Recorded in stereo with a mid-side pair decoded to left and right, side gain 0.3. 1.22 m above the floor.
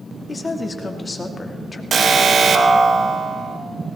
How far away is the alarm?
About 1.8 m.